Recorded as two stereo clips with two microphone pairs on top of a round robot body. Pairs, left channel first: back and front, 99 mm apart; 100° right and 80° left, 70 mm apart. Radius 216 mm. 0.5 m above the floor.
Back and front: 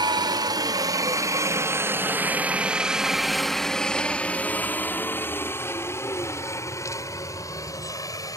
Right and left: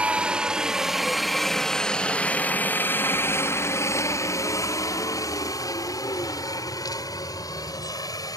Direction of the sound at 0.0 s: 15° left.